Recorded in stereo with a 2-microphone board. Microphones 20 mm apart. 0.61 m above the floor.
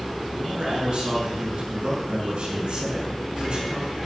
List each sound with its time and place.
0.3 s a man speaking: 60° right (ahead or behind), 6.5 m